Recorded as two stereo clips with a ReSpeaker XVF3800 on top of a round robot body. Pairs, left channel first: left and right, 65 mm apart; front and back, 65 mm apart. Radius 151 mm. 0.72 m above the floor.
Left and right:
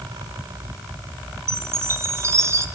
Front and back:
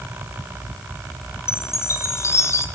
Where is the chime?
45° right, 1.3 m.